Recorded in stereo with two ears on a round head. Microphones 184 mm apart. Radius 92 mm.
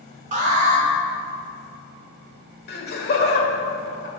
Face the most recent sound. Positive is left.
turn(degrees=50)  # may be behind; listen again after turning